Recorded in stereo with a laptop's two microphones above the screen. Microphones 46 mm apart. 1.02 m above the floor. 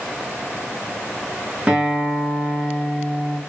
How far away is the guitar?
About 1.0 m.